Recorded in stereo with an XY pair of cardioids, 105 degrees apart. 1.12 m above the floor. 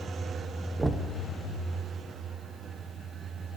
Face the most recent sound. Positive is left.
turn(degrees=-15)